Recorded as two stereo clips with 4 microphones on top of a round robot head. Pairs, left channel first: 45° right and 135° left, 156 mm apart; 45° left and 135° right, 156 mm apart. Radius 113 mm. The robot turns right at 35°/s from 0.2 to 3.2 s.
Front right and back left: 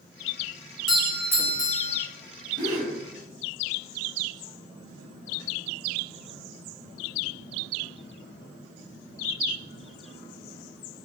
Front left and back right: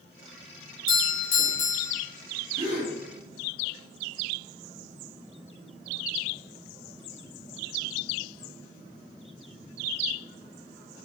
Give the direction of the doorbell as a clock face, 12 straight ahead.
10 o'clock.